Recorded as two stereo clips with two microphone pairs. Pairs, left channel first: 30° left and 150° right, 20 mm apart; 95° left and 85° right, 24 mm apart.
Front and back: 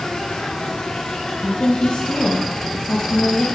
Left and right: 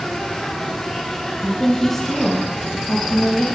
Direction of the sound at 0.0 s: 60° left.